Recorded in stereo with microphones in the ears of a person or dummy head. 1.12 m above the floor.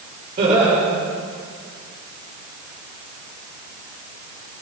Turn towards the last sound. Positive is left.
turn(degrees=-45)  # may be behind; listen again after turning